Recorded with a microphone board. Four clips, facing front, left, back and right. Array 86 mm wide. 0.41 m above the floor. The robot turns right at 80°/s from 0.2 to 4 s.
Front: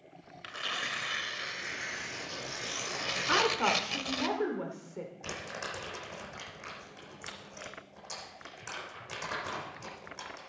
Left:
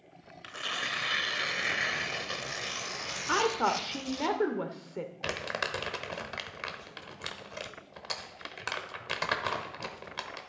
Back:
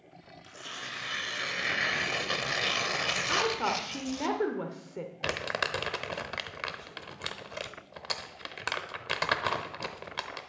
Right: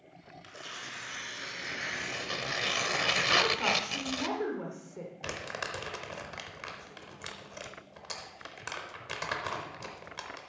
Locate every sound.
0.4 s tearing paper: 30° left, 0.7 m; by 4.3 s 45° right, 0.7 m
3.3 s a woman speaking: 50° left, 1.0 m; by 5.1 s 110° left, 1.0 m
5.2 s crumpling: 160° left, 0.9 m